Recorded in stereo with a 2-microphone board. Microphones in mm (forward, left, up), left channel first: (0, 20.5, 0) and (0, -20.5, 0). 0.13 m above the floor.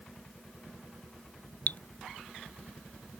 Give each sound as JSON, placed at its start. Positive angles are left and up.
{"t": 1.7, "sound": "dripping", "side_deg": 50}